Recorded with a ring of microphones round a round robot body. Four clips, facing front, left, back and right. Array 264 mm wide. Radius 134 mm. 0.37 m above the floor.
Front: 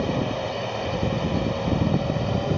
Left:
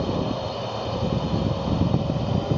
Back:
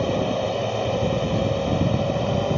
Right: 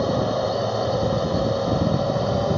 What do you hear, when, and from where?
0.0 s a drone: 120° right